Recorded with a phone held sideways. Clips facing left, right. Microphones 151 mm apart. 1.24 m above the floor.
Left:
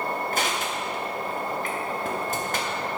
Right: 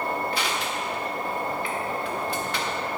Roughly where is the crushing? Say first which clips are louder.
Left 1 dB; left.